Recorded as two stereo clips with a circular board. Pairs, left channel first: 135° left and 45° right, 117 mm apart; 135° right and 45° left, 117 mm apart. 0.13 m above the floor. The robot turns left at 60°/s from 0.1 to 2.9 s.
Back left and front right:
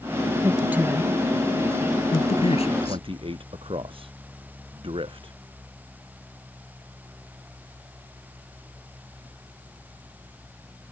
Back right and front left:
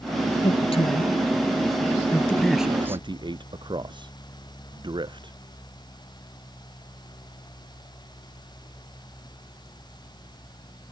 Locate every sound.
0.4 s a man speaking: 100° right; by 3.0 s 115° left
2.8 s a man speaking: straight ahead; by 5.3 s 5° right